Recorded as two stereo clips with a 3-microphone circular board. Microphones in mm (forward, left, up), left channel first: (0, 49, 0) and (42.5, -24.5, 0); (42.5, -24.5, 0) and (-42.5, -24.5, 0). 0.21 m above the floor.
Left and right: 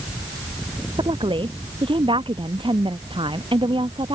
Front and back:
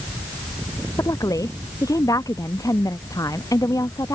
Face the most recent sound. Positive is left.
turn(degrees=-50)